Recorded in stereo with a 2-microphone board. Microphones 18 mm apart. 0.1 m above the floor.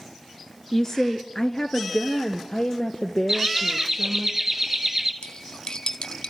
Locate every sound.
0.7 s a woman speaking: 20° left (ahead or behind), 1.1 m; by 4.3 s 35° left (ahead or behind), 3 m
3.3 s laughter: 25° right (ahead or behind), 1.7 m
5.2 s cutlery clinking: 50° left (ahead or behind), 2 m